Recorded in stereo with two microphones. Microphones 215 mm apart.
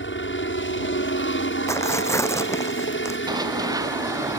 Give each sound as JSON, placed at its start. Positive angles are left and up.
{"t": 0.0, "sound": "a helicopter", "side_deg": 65}
{"t": 1.7, "sound": "tearing paper", "side_deg": 15}
{"t": 3.3, "sound": "running footsteps", "side_deg": -20}